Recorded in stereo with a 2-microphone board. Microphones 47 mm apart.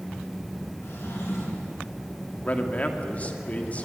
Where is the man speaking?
30° left (ahead or behind), 2 m.